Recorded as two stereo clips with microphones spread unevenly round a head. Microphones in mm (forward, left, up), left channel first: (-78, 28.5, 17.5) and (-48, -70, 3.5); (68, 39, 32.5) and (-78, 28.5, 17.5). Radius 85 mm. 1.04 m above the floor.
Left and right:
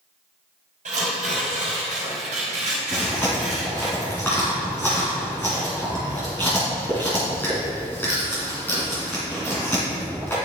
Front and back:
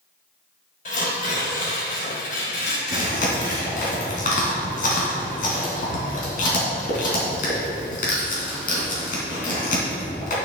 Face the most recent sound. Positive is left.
turn(degrees=30)